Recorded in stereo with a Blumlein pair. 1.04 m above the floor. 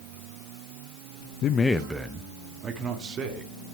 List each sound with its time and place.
1.4 s a man speaking: 35° left, 0.5 m; by 3.5 s 25° right, 2.5 m